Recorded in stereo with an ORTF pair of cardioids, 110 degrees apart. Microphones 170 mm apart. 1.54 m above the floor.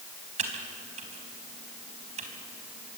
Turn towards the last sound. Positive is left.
turn(degrees=-45)